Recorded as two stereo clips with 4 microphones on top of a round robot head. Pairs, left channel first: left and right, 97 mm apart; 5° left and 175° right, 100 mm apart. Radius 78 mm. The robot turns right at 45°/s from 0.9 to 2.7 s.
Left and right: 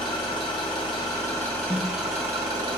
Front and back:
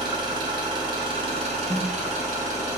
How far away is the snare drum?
About 1.9 m.